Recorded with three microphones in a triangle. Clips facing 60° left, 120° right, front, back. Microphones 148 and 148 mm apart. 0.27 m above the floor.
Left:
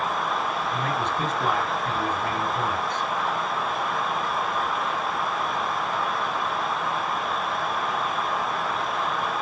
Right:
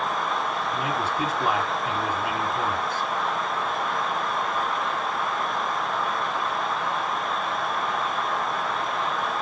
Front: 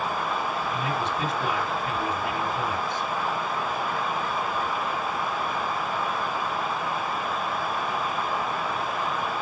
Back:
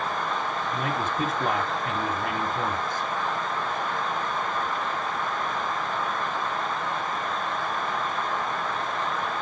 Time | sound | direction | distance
0.7 | a man speaking | 160° left | 1.5 m